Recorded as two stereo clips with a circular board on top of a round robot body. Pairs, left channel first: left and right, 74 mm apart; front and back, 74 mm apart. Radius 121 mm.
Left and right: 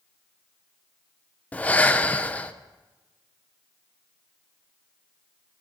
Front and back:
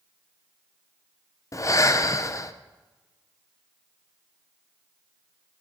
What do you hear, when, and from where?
1.5 s breathing: 25° left, 0.6 m